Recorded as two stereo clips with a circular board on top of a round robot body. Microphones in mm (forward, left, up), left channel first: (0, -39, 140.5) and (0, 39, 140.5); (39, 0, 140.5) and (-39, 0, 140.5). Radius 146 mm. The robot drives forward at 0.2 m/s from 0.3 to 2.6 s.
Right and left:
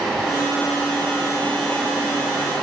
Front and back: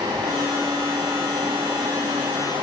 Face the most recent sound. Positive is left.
No sound to turn to.